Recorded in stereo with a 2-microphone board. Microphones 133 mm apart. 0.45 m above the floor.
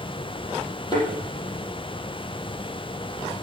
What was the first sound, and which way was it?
A thud, 35° left (ahead or behind).